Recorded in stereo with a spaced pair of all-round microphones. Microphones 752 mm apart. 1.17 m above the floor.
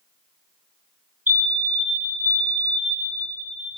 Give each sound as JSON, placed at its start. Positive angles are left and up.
{"t": 1.3, "sound": "a fire alarm", "side_deg": -20, "distance_m": 3.5}